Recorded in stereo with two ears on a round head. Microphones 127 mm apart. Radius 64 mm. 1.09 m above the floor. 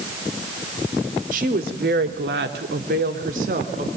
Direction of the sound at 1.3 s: 60° right (ahead or behind).